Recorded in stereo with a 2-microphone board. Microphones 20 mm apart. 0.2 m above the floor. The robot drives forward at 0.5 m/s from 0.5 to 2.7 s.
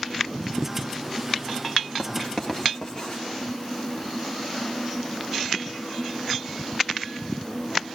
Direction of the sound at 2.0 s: 10° left (ahead or behind).